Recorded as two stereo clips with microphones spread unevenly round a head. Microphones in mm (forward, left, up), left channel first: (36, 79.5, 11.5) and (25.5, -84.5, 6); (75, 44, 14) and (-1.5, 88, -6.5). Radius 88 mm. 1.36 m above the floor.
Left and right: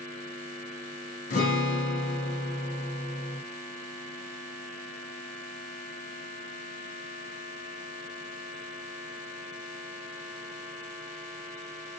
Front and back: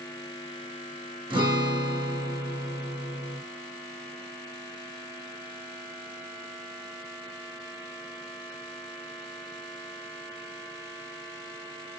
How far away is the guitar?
About 1.5 m.